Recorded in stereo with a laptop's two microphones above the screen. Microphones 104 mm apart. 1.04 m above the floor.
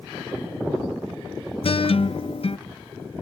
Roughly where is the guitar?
Left.